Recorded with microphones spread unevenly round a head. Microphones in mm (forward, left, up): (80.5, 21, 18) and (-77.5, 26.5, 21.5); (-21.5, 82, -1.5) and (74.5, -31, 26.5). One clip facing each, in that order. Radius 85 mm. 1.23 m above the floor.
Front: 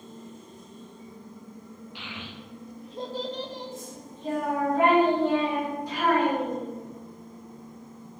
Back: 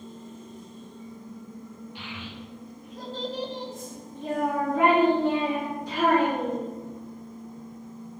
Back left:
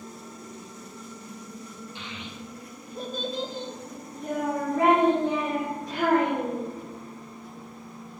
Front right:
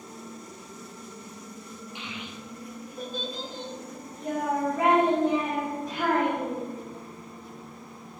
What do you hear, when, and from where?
1.9 s a child speaking: 25° left, 1.1 m; by 6.7 s 170° left, 2.5 m